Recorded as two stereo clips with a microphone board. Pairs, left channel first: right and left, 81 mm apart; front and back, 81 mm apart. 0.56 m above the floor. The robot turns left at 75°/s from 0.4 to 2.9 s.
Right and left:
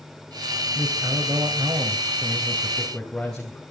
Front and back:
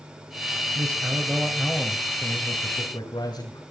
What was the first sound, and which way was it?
A man speaking, 155° left.